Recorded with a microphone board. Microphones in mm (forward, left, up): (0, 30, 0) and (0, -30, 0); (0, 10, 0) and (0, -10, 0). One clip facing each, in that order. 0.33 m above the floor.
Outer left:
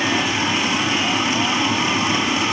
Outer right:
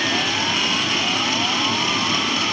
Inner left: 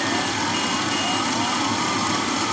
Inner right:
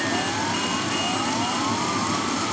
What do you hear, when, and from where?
0.0 s running water: 20° left (ahead or behind), 1.9 m